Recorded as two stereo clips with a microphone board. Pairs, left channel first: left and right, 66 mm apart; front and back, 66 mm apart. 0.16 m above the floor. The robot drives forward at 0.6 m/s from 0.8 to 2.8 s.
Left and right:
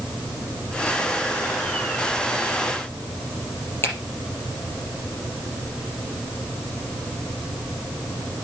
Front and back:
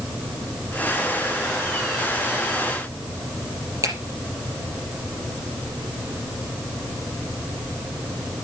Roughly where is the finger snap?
Behind left.